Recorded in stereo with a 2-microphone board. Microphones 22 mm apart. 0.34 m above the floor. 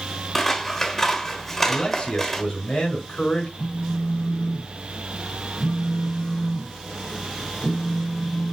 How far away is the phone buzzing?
About 1.5 m.